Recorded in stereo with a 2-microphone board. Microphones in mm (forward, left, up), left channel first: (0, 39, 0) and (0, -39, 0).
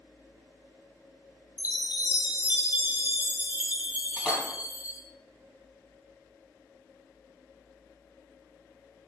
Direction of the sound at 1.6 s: 25° right (ahead or behind).